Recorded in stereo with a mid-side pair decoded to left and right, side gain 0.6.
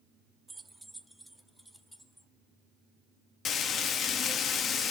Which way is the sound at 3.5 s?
50° left.